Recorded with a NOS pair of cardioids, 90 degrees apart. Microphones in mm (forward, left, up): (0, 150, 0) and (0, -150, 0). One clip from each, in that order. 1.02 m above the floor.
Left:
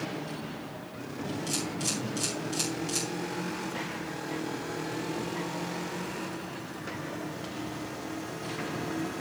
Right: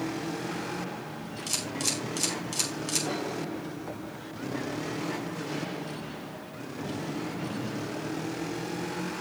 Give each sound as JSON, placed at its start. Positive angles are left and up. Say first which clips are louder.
{"t": 1.5, "sound": "a camera shutter", "louder": "right 3 dB", "azimuth_deg": -35, "distance_m": 5.0}